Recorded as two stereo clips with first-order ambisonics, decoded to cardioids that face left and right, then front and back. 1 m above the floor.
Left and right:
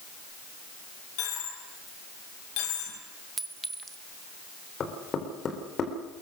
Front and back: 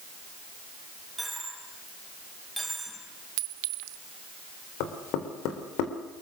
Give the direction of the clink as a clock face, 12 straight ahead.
6 o'clock.